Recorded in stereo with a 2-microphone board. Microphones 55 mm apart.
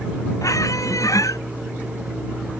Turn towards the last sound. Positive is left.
turn(degrees=85)